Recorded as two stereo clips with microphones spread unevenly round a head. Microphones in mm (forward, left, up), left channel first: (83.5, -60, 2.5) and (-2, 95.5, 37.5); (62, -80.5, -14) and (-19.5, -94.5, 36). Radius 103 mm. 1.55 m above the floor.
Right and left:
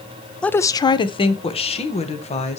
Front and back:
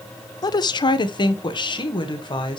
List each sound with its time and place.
0.4 s a woman speaking: 20° left, 0.5 m; by 2.6 s 10° right, 2.5 m